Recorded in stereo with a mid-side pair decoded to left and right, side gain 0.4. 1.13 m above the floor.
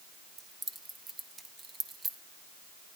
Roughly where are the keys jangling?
Ahead right.